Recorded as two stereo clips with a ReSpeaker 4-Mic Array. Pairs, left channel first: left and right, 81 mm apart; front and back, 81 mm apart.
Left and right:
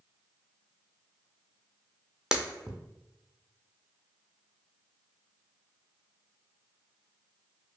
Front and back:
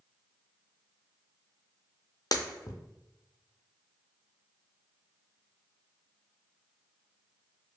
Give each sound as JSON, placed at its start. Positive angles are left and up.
{"t": 2.3, "sound": "breaking glass", "azimuth_deg": -10, "distance_m": 0.6}